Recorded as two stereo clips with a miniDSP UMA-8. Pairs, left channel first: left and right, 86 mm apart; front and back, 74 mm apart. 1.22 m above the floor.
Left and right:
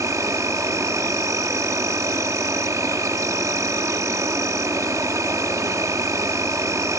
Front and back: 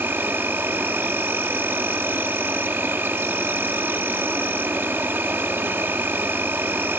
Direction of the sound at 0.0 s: 130° right.